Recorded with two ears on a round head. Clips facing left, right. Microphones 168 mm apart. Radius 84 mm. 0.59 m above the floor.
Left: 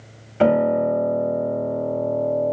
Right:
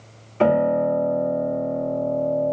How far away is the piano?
About 1.1 m.